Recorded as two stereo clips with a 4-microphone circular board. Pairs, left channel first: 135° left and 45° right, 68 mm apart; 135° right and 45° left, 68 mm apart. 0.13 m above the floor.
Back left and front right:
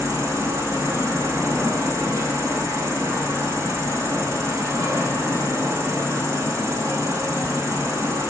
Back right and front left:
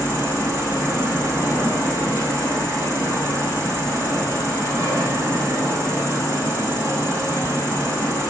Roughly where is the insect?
Ahead.